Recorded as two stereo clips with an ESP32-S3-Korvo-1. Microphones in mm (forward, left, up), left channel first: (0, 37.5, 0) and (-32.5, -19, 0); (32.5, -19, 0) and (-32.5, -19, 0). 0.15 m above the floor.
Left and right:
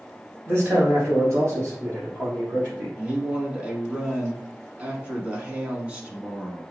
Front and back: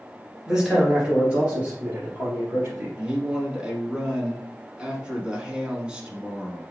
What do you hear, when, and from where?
0.5 s a man speaking: 115° right, 1.6 m; by 2.9 s 170° right, 2 m
3.0 s a man speaking: 135° right, 1.0 m